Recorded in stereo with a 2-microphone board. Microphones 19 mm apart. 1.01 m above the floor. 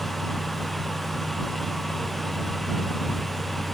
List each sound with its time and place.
Only background noise.